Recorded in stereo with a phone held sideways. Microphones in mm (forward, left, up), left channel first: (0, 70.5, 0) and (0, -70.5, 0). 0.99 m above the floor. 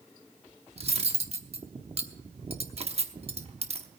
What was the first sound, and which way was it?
Cutlery clinking, 45° right (ahead or behind).